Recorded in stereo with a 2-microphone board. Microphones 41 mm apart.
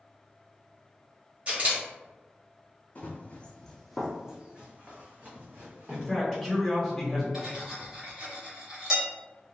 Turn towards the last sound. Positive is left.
turn(degrees=-20)  # may be behind; listen again after turning